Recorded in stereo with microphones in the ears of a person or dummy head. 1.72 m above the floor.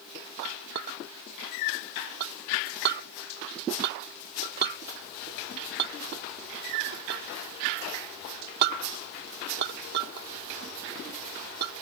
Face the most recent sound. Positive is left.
turn(degrees=-55)  # may be behind; listen again after turning